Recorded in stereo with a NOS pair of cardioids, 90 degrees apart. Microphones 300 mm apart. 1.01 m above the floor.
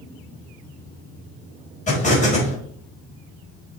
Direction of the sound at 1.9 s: 25° left.